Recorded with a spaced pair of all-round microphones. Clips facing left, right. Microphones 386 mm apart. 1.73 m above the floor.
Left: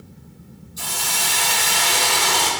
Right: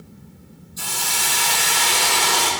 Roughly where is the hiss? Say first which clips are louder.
Even; centre.